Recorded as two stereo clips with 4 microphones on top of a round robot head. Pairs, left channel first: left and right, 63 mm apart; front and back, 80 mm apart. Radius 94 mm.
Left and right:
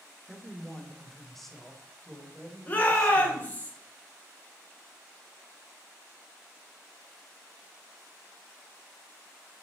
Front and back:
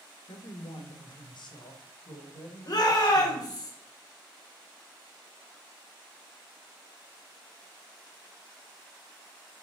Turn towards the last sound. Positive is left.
turn(degrees=25)